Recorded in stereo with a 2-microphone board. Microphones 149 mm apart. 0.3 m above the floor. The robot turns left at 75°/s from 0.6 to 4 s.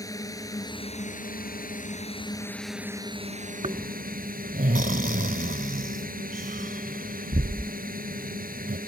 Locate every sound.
0.0 s a drone: 155° left; by 8.9 s 100° right
3.6 s snoring: 45° right (ahead or behind); by 8.8 s 75° right (ahead or behind)